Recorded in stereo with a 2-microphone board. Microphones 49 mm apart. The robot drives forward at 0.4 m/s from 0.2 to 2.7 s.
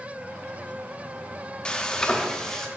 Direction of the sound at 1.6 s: 20° left (ahead or behind).